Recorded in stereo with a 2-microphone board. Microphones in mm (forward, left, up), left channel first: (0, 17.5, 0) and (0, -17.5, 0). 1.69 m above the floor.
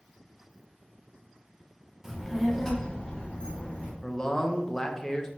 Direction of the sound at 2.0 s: 10° right (ahead or behind).